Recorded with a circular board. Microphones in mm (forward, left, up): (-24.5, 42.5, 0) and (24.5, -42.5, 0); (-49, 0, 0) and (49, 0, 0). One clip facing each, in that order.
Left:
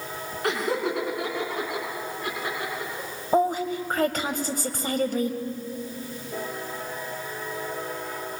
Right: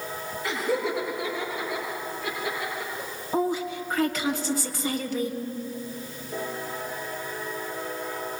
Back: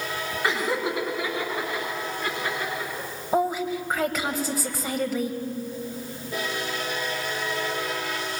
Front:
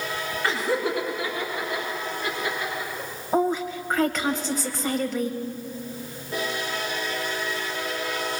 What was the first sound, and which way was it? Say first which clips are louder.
Laughter: left 1 dB, front 1 dB; 105° left.